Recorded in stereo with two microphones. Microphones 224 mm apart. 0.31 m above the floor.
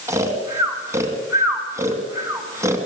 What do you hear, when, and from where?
0.1 s snoring: 15° right (ahead or behind), 2.5 m